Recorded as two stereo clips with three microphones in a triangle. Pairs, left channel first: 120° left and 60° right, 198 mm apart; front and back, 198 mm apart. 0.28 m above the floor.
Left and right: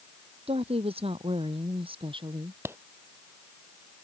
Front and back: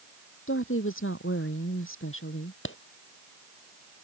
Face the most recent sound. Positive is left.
turn(degrees=20)